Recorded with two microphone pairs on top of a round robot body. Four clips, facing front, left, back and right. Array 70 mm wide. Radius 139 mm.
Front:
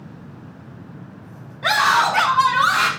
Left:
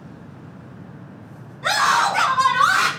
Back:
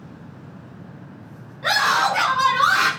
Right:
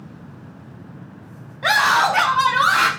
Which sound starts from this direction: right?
A scream, at 1.6 s.